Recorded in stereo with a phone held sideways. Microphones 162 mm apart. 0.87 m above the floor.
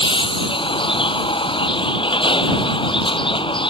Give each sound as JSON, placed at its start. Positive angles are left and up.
{"t": 0.0, "sound": "a vehicle", "side_deg": 30}